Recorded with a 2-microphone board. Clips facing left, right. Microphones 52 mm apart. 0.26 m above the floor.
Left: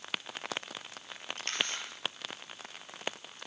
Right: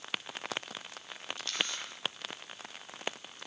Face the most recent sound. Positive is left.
turn(degrees=50)  # may be behind; listen again after turning